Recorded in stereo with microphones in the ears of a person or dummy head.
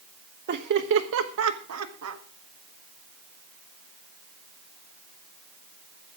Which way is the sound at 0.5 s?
50° right (ahead or behind).